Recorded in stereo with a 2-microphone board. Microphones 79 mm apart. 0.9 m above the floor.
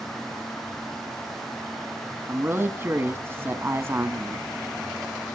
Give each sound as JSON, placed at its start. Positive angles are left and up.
{"t": 2.3, "sound": "a man speaking", "side_deg": -30, "distance_m": 1.1}